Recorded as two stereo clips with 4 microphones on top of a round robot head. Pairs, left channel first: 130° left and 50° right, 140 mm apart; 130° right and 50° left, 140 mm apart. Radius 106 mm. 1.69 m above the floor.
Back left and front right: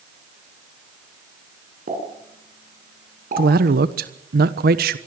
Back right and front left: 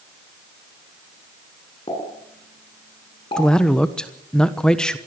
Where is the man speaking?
45° right, 1.2 m.